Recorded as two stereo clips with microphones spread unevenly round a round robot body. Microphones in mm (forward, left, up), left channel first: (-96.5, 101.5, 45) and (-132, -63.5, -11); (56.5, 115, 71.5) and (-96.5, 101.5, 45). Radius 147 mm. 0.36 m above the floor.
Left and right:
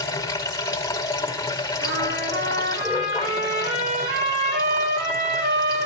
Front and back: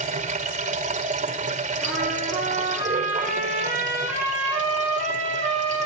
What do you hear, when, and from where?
0.0 s running water: 145° left, 5 m
1.8 s a trumpet: 75° right, 8 m